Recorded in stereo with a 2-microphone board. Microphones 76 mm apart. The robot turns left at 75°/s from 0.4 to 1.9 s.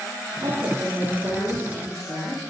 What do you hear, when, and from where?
0.4 s a woman speaking: 120° right, 3.5 m; by 2.4 s 125° left, 3.5 m